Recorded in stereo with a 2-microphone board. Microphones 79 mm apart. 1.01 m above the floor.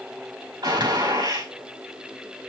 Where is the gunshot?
65° right (ahead or behind), 4.5 m.